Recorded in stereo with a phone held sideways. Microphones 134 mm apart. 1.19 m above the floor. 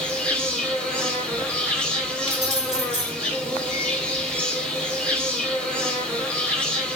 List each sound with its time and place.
0.0 s an insect: 10° left (ahead or behind), 2 m
2.3 s keys jangling: 55° left (ahead or behind), 3.5 m